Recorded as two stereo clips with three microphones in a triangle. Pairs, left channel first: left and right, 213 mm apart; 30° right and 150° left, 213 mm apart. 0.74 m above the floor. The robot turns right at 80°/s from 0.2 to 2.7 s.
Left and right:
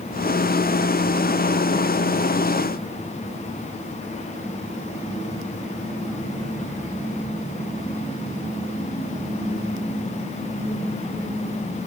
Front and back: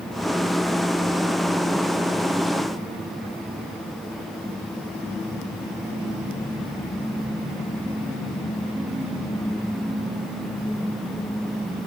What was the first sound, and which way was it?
Only background noise.